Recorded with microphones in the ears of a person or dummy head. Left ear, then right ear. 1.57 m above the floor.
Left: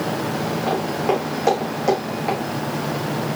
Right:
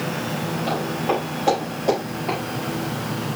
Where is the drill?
I don't hear a drill.